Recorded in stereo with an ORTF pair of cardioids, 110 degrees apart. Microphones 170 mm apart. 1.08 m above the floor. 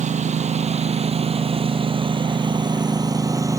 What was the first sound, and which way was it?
A lawn mower, 40° right.